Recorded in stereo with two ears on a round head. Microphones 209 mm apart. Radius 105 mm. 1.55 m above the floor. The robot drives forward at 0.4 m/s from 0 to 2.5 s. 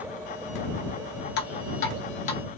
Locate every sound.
1.4 s dripping: 50° left (ahead or behind), 0.7 m; by 2.4 s 30° left (ahead or behind), 1.0 m